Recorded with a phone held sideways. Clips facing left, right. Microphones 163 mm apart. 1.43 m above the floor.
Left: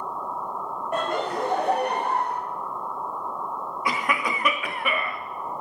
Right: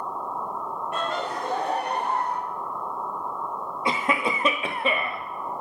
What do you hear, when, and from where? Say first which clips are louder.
0.9 s laughter: left 4 dB; 45° left (ahead or behind), 1.2 m; by 2.4 s 60° left (ahead or behind), 1.3 m
3.9 s a cough: right 2 dB; 25° right (ahead or behind), 0.7 m